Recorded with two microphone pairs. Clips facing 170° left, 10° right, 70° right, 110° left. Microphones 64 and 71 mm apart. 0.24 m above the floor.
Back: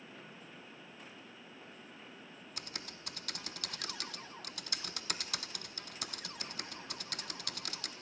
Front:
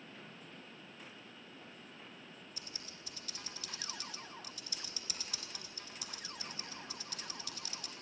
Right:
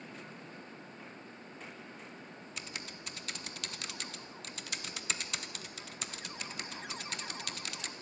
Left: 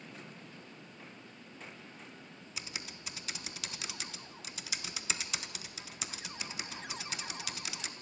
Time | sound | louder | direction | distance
2.6 | typing on a keyboard | back 4 dB, left 1 dB | 165° right | 0.9 m